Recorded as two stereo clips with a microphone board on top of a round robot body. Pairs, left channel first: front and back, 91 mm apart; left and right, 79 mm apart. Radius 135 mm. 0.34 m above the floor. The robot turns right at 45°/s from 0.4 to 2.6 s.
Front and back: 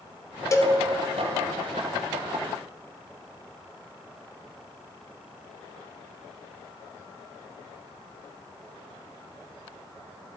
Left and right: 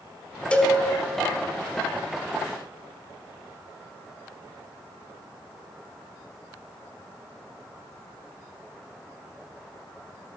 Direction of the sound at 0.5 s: 25° left.